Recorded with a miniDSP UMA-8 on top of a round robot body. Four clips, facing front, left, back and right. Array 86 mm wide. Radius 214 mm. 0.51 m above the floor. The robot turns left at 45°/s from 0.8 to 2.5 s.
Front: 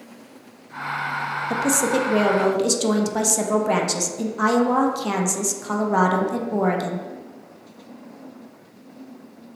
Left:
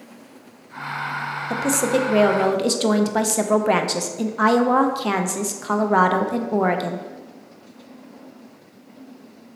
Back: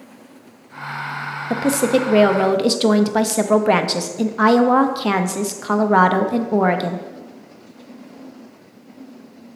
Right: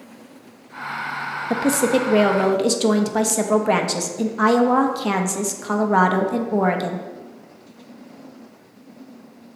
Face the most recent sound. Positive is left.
turn(degrees=175)